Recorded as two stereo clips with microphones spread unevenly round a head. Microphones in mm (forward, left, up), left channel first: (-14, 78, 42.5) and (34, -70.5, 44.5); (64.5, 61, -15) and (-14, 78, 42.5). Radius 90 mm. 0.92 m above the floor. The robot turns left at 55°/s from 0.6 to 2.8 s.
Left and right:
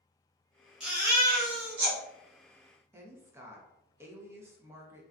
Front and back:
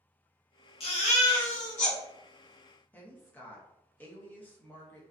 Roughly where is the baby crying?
Ahead.